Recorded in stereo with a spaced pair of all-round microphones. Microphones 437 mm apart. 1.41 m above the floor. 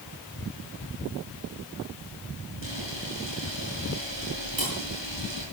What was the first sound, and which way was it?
A camera shutter, 75° right (ahead or behind).